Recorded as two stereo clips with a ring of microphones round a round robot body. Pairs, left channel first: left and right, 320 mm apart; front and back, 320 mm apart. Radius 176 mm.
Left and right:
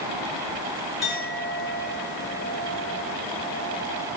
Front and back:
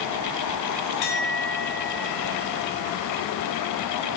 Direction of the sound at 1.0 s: Straight ahead.